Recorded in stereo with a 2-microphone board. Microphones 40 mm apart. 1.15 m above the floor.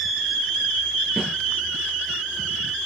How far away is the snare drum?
About 9.5 m.